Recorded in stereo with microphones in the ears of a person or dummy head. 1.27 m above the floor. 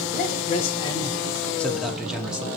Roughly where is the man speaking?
Left.